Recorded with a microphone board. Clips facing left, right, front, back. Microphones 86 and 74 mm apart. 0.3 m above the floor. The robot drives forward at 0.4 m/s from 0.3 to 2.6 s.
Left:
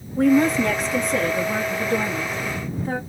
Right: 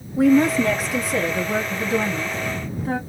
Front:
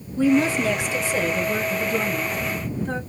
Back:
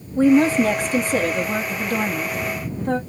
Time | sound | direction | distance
0.2 | a woman speaking | 175° right | 1.0 m